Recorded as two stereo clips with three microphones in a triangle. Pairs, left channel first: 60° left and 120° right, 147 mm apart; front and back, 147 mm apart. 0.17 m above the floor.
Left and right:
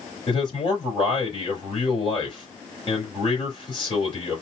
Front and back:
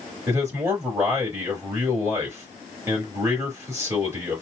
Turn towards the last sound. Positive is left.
turn(degrees=110)